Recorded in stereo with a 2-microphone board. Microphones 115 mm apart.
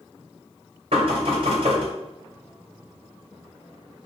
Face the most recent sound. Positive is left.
turn(degrees=-60)  # may be behind; listen again after turning